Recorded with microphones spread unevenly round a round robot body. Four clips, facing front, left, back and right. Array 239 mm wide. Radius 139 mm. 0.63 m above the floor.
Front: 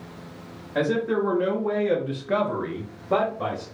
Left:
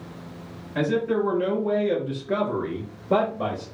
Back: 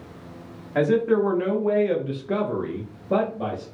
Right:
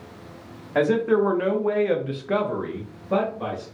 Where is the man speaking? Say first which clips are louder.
Right 4 dB, back 4 dB; 85° right, 1.3 m; by 3.6 s 115° left, 1.0 m.